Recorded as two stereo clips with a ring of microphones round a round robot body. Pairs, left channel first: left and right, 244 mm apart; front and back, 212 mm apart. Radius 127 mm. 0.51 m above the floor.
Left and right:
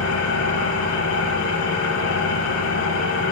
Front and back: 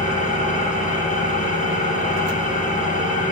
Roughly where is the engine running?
Ahead left.